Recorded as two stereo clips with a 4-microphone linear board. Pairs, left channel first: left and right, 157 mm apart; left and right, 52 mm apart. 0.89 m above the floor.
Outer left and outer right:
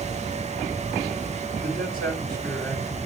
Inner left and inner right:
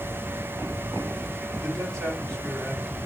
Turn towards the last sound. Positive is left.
turn(degrees=-70)  # may be behind; listen again after turning